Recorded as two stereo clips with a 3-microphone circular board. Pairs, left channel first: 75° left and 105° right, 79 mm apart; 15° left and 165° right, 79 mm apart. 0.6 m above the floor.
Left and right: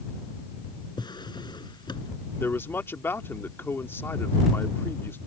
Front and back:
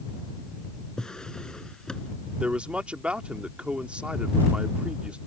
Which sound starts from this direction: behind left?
A man speaking, at 2.4 s.